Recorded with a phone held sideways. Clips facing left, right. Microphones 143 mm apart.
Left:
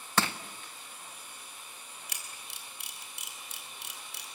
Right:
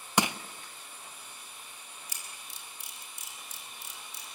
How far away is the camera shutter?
About 3.5 m.